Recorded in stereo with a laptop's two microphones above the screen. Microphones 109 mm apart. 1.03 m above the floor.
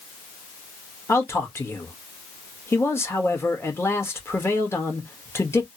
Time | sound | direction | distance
1.1 | a man speaking | 25° left (ahead or behind) | 1.4 m